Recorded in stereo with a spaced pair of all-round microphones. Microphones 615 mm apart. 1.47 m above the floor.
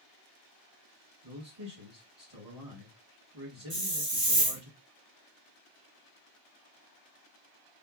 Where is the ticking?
I don't hear ticking.